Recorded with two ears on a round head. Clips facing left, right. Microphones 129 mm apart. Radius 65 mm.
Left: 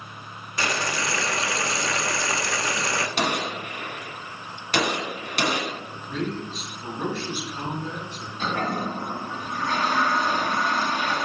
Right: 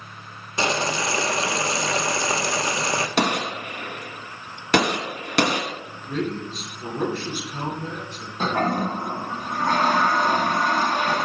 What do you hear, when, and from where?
0.6 s boiling: 20° right (ahead or behind), 0.6 m
3.2 s a gunshot: 50° right (ahead or behind), 1.2 m
6.1 s a man speaking: 40° right (ahead or behind), 3 m
8.4 s a toilet flushing: 45° right (ahead or behind), 1.1 m